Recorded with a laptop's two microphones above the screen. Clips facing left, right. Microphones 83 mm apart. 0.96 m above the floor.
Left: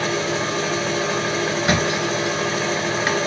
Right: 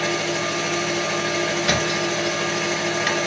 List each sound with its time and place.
0.0 s a machine running: 40° left (ahead or behind), 1.1 m
1.6 s a thud: 30° left (ahead or behind), 1.4 m